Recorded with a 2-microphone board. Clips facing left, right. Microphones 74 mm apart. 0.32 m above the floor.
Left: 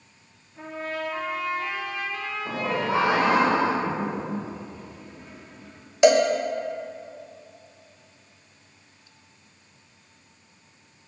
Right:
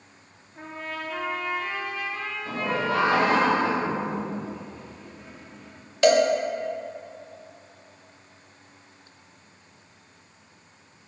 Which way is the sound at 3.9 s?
Centre (ahead or behind).